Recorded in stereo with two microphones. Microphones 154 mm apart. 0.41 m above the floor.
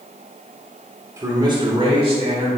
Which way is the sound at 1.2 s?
20° right (ahead or behind).